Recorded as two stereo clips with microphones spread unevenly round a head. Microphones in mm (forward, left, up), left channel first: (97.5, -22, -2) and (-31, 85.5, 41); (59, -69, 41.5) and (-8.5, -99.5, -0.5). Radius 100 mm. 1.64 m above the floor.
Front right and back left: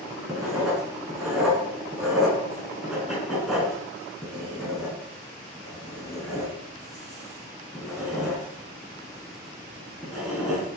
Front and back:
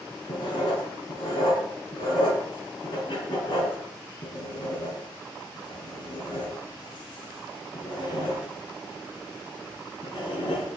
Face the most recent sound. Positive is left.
turn(degrees=55)